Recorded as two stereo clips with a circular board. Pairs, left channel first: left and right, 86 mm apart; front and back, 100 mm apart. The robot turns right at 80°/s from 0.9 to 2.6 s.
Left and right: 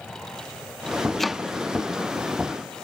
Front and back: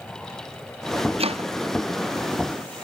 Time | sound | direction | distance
1.2 | chopping | 175° left | ?